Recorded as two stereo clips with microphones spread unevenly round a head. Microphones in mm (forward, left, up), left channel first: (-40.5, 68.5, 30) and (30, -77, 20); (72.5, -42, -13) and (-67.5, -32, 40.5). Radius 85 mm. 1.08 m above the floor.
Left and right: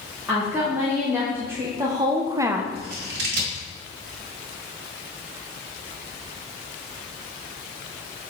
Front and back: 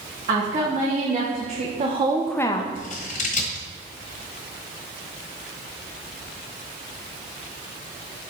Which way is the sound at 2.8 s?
45° right.